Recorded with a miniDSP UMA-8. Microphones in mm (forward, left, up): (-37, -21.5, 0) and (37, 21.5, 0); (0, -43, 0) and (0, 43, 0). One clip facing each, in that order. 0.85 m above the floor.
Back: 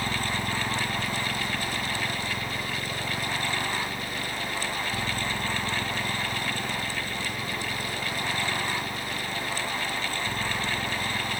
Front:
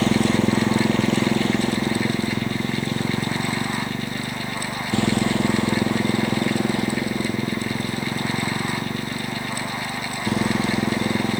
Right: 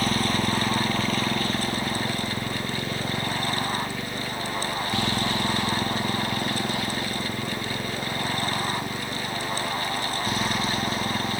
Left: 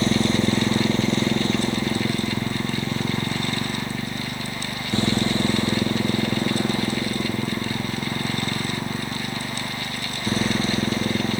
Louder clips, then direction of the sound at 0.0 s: Front 11 dB, left 4 dB; 25° left.